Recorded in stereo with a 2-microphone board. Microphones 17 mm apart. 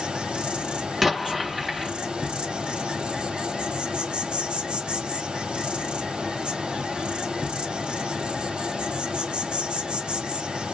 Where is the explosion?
10° right (ahead or behind), 1.3 m.